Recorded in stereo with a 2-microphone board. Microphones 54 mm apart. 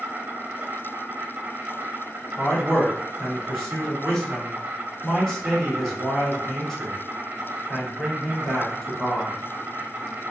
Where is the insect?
30° right (ahead or behind), 0.7 m.